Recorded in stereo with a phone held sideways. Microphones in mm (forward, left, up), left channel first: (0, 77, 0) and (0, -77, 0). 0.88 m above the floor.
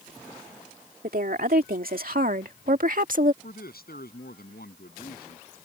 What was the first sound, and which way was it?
A woman speaking, 75° right (ahead or behind).